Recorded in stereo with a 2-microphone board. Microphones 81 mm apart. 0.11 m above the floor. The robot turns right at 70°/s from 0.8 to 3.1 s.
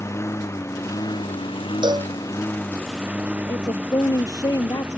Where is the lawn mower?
35° left; by 5.0 s 165° right.